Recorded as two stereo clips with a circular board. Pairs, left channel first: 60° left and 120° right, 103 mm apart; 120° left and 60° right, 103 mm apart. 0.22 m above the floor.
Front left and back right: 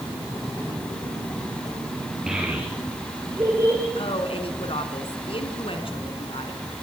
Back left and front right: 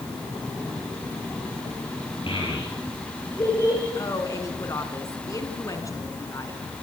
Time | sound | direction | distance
2.3 | a child speaking | 155° left | 3.5 m
4.0 | a woman speaking | 65° left | 2.5 m